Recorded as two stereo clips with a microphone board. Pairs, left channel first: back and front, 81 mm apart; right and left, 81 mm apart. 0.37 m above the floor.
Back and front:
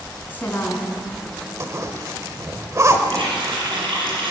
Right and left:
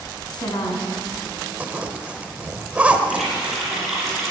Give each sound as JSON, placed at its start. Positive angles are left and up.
{"t": 0.3, "sound": "a woman speaking", "azimuth_deg": -115, "distance_m": 3.5}
{"t": 1.6, "sound": "a zipper", "azimuth_deg": 25, "distance_m": 1.3}
{"t": 3.1, "sound": "a running tap", "azimuth_deg": -5, "distance_m": 7.0}